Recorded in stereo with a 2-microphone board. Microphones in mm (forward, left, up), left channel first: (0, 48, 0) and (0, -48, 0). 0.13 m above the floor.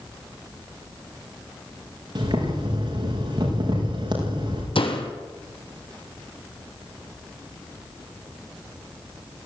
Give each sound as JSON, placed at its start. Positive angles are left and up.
{"t": 2.1, "sound": "boiling", "side_deg": -60, "distance_m": 7.5}
{"t": 4.8, "sound": "a door slam", "side_deg": 75, "distance_m": 3.5}